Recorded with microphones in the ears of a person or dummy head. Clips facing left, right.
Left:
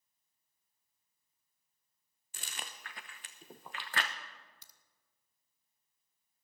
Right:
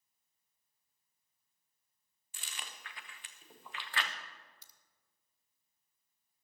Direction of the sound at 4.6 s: 65° left (ahead or behind).